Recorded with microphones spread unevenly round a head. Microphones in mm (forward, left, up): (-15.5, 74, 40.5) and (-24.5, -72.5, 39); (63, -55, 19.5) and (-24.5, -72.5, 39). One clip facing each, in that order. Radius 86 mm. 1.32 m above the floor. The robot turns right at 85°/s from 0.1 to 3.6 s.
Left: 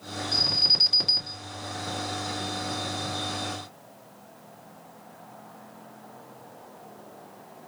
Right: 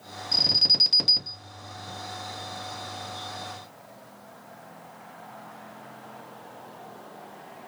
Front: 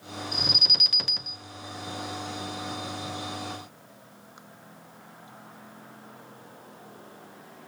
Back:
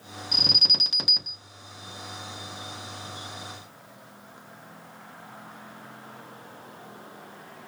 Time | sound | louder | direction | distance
0.3 | an alarm | left 1 dB, back 2 dB | 165° right | 1.1 m